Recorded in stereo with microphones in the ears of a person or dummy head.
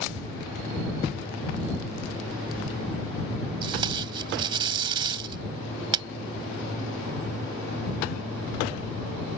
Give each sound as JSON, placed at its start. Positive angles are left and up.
{"t": 3.6, "sound": "tape being pulled", "side_deg": -30}